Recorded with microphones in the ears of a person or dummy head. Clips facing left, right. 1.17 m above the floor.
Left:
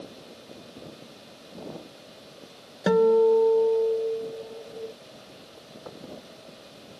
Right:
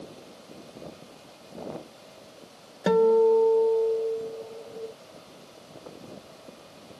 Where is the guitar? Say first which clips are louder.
Left 1 dB; centre (ahead or behind).